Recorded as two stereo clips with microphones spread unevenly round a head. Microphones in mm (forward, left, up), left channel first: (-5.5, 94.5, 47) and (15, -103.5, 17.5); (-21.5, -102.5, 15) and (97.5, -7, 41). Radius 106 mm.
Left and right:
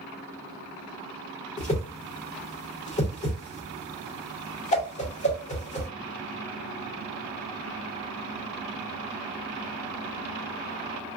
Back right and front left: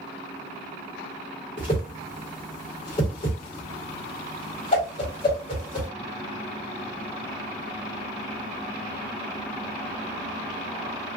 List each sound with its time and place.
1.6 s a whoosh: 155° left, 1.0 m